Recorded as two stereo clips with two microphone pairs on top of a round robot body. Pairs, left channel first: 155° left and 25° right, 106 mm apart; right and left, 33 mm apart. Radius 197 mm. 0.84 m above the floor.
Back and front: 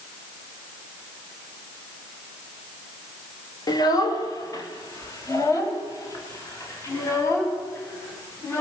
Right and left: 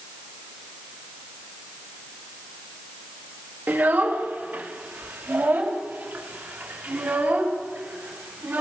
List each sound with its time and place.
3.7 s a child speaking: 100° left, 3 m; by 8.6 s 90° left, 7.5 m